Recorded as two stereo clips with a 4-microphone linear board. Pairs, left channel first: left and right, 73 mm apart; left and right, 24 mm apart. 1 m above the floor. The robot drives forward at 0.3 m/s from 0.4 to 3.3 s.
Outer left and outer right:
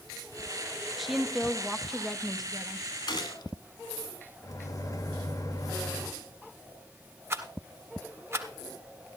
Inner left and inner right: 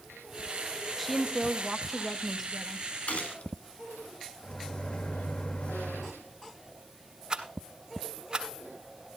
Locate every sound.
1.0 s a woman speaking: centre (ahead or behind), 0.7 m
3.1 s a gunshot: 80° left, 1.9 m
4.4 s a microwave: 50° left (ahead or behind), 1.5 m
7.3 s a rattle: 40° right (ahead or behind), 1.5 m